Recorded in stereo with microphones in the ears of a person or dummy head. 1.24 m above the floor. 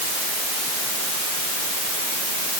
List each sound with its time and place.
Only background noise.